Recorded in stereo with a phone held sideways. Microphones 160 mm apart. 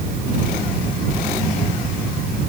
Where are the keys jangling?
I don't hear keys jangling.